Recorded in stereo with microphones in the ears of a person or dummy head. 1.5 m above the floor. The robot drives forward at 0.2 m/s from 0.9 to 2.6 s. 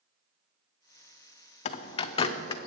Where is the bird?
45° left (ahead or behind), 0.5 m; by 2.7 s 35° left (ahead or behind), 0.7 m.